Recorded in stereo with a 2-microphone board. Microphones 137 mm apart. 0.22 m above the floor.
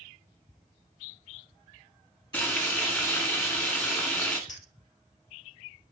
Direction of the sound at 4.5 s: 70° left (ahead or behind).